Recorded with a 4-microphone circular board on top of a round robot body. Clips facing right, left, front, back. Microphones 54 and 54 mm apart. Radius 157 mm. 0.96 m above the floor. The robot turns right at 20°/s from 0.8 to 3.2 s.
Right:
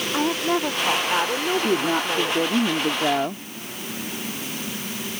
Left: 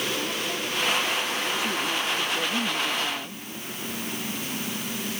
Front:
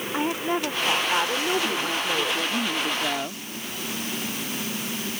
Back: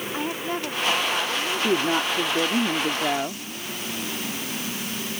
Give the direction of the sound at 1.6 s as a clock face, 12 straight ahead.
5 o'clock.